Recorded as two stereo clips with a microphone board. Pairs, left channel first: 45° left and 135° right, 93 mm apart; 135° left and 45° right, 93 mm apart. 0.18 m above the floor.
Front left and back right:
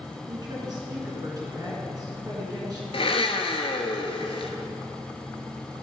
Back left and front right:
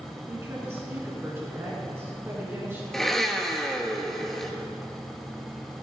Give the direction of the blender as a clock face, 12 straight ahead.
10 o'clock.